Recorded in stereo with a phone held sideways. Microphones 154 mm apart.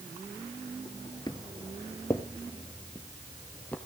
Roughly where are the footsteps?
Left.